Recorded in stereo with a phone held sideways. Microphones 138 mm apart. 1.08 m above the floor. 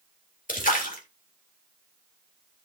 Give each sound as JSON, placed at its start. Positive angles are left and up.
{"t": 0.5, "sound": "a splash", "side_deg": 80, "distance_m": 2.0}